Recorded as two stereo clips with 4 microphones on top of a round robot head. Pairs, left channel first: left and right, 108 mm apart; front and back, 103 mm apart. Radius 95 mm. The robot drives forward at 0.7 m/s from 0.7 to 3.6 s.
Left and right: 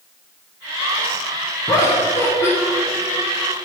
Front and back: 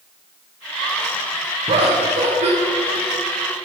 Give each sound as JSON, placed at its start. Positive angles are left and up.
{"t": 1.7, "sound": "laughter", "azimuth_deg": 150, "distance_m": 1.4}